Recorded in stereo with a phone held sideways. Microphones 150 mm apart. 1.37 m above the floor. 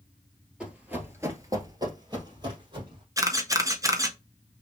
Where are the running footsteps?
5° right (ahead or behind), 1.5 m; by 3.0 s 30° right (ahead or behind), 2.5 m.